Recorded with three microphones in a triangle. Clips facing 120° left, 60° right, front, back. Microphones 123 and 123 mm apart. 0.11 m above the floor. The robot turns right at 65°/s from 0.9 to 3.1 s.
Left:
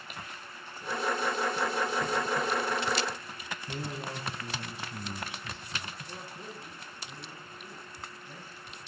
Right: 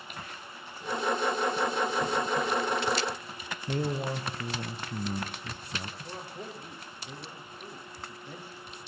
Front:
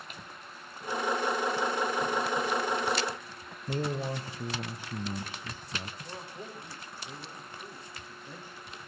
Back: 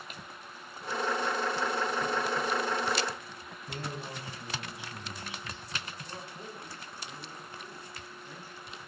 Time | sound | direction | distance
3.7 | a man speaking | 35° right | 2 m
6.0 | a man speaking | 70° right | 8 m